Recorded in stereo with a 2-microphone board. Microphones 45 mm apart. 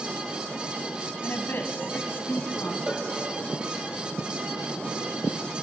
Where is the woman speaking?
55° left (ahead or behind), 2 m.